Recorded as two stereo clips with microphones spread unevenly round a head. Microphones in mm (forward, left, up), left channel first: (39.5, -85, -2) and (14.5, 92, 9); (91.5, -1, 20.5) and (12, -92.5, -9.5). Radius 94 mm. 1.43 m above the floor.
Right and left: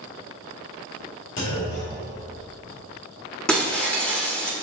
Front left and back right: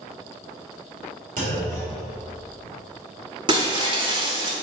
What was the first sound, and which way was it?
A clunk, 110° right.